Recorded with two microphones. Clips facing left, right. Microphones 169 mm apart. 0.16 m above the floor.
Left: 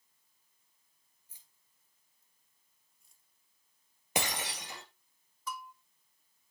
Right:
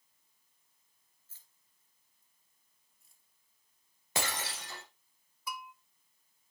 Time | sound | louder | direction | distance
1.3 | keys jangling | left 1 dB | 15° left (ahead or behind) | 2 m
4.2 | breaking glass | left 2 dB | 15° left (ahead or behind) | 2.5 m
5.5 | a bell | left 1 dB | 10° right (ahead or behind) | 0.9 m